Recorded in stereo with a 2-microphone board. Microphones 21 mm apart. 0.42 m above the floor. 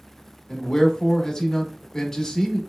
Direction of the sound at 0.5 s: 25° left (ahead or behind).